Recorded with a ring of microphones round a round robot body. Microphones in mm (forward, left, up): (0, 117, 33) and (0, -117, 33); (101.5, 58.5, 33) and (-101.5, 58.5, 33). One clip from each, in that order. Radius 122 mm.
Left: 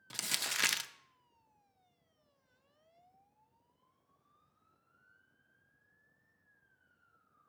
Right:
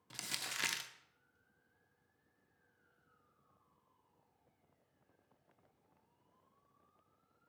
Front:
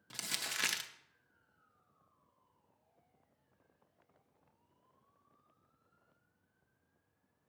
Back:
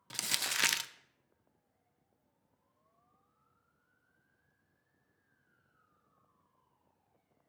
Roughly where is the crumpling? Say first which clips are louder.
Left 6 dB, back 5 dB; behind left.